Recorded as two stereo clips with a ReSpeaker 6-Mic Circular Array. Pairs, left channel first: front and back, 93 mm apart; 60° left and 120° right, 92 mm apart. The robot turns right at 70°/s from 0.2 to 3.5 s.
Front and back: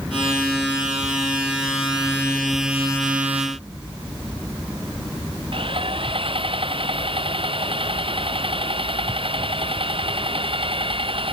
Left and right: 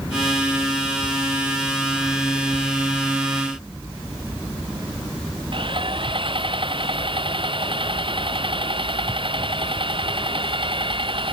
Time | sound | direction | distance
5.5 | sawing | 150° right | ?